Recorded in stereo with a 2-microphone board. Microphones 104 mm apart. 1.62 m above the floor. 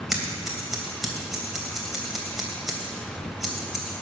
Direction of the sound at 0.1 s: 5° right (ahead or behind).